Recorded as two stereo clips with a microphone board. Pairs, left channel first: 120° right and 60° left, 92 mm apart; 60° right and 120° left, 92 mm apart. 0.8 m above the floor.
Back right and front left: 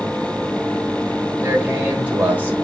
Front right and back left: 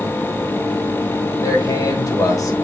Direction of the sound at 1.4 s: 10° right.